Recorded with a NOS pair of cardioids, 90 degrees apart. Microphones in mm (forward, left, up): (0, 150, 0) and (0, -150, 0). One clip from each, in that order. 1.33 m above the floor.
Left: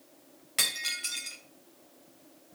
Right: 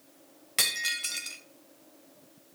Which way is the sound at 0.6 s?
10° right.